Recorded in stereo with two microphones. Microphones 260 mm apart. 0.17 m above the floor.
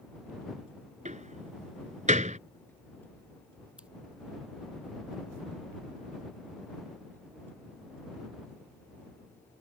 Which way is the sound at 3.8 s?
5° right (ahead or behind).